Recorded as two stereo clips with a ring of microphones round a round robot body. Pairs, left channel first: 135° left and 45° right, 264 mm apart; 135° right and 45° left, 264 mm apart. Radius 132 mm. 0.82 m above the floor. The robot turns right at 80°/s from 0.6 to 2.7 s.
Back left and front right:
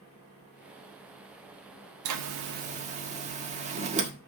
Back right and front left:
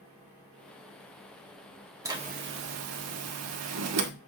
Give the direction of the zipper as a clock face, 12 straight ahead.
1 o'clock.